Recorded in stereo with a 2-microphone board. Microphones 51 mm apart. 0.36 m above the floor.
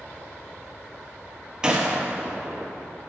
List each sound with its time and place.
1.6 s a gunshot: 15° right (ahead or behind), 1.3 m